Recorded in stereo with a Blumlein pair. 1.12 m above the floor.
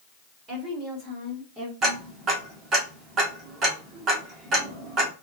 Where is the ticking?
25° right, 1.5 m.